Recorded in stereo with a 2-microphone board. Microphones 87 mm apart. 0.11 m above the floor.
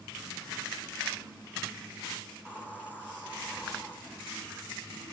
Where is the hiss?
20° left (ahead or behind), 6 m.